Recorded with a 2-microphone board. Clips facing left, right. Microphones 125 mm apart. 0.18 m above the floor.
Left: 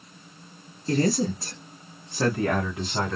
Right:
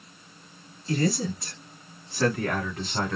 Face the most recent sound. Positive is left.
turn(degrees=5)  # may be behind; listen again after turning